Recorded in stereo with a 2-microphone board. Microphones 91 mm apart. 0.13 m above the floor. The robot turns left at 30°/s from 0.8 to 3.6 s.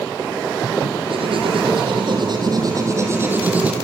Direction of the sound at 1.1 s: 85° right.